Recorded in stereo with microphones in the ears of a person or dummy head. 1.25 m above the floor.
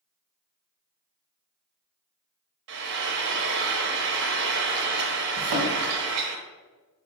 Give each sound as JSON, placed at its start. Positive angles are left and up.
{"t": 2.7, "sound": "frying", "side_deg": -55, "distance_m": 0.7}
{"t": 5.4, "sound": "a thud", "side_deg": -50, "distance_m": 1.2}